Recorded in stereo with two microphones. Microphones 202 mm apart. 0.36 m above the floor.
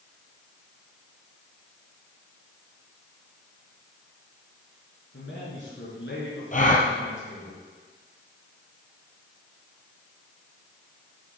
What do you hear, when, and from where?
5.1 s a man speaking: 70° left (ahead or behind), 5 m
6.5 s a gasp: 40° left (ahead or behind), 1.8 m